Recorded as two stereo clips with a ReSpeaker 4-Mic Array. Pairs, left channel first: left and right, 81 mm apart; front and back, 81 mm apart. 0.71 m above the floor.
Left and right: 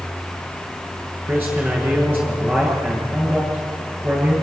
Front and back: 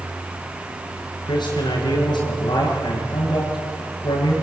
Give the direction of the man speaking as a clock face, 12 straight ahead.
1 o'clock.